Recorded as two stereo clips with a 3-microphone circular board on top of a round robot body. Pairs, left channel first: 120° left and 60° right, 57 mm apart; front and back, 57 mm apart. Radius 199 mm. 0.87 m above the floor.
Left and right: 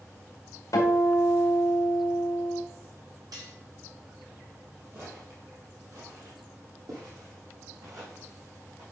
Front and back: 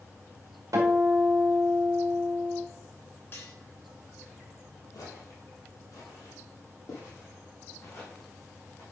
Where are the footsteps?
15° right, 1.9 m; by 8.8 s 45° right, 4 m.